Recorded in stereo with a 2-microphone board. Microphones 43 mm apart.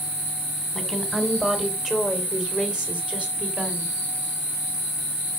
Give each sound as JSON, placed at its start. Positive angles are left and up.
{"t": 0.8, "sound": "a woman speaking", "side_deg": 0, "distance_m": 2.5}